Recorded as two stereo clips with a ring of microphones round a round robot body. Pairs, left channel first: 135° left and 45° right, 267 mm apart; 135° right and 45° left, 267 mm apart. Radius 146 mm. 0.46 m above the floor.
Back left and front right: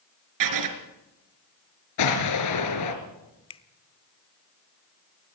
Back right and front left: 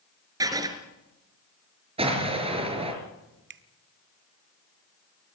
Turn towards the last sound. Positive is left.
turn(degrees=70)